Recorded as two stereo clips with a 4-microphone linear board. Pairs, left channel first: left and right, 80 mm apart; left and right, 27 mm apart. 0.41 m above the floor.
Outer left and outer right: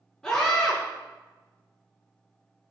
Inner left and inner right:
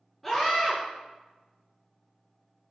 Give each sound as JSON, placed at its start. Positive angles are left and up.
{"t": 0.2, "sound": "a scream", "side_deg": 10, "distance_m": 5.0}